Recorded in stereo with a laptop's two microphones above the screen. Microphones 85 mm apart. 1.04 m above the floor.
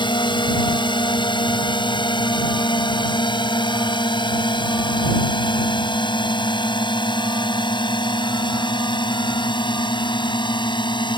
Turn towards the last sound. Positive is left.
turn(degrees=75)  # may be behind; listen again after turning